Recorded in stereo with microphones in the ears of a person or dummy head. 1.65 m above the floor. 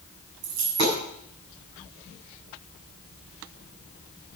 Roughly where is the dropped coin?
Right.